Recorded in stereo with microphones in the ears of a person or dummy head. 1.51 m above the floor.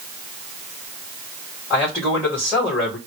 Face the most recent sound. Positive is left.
turn(degrees=10)  # may be behind; listen again after turning